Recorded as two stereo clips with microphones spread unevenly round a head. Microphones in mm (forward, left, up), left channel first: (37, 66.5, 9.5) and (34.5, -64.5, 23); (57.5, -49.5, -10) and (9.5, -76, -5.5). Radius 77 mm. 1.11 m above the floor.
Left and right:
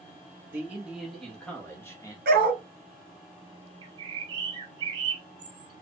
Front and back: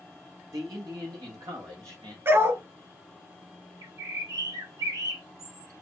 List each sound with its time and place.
0.5 s a man speaking: 170° right, 1.5 m; by 2.1 s 155° left, 1.7 m
2.2 s a dog barking: 115° right, 2.5 m
3.8 s a bird: 155° right, 1.1 m